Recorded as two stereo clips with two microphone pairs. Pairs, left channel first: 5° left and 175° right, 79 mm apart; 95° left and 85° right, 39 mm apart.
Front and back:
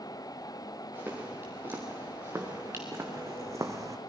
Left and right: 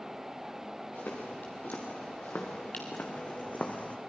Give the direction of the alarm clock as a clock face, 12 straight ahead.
No alarm clock in this recording.